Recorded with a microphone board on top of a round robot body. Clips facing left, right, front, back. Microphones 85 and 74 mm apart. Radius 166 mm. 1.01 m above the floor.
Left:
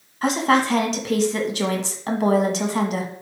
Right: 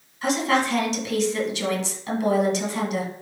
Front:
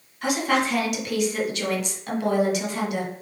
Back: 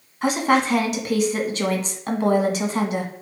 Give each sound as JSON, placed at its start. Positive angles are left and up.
{"t": 0.2, "sound": "a woman speaking", "azimuth_deg": 125, "distance_m": 1.8}